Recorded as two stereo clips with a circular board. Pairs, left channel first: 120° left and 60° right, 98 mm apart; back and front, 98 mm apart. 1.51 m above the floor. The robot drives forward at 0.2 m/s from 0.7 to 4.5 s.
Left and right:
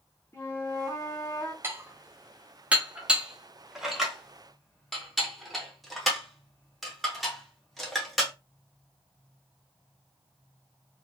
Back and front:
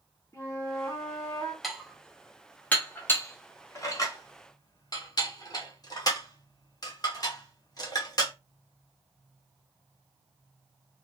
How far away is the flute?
About 0.8 m.